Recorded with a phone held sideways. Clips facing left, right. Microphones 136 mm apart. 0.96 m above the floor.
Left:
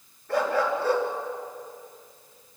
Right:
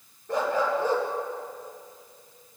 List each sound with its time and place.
0.3 s a dog barking: 20° right (ahead or behind), 4.5 m